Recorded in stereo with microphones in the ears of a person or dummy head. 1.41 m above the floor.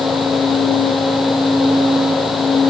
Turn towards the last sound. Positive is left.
No sound to turn to.